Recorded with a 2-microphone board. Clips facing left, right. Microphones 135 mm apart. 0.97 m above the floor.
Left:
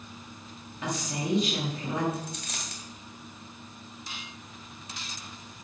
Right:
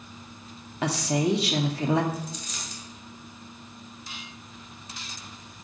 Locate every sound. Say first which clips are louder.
0.8 s a woman speaking: right 7 dB; 75° right (ahead or behind), 1.5 m
2.1 s a dropped coin: right 1 dB; 70° left (ahead or behind), 2.5 m